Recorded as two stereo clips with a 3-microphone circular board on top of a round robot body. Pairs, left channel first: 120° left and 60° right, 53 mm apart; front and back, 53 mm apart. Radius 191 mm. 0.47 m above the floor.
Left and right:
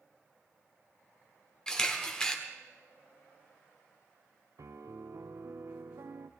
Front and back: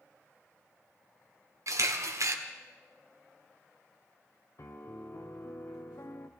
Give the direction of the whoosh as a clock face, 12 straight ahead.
No whoosh in this recording.